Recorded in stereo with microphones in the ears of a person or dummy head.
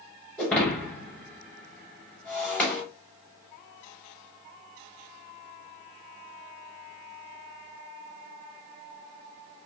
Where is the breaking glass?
Centre (ahead or behind), 1.7 m.